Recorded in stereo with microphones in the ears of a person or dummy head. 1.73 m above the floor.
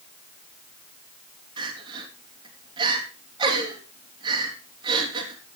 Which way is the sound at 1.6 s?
25° right (ahead or behind).